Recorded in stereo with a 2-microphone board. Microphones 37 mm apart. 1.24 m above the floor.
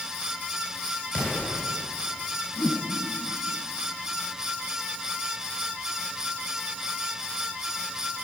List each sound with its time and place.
1.1 s an explosion: 60° left (ahead or behind), 7.5 m
2.6 s a whoosh: 65° left (ahead or behind), 4 m